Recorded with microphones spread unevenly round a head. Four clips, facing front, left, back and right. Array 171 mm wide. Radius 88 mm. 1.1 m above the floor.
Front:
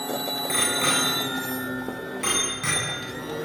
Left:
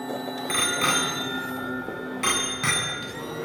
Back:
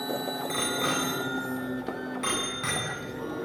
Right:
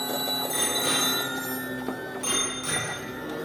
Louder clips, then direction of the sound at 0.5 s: Left 6 dB, front 4 dB; 55° left.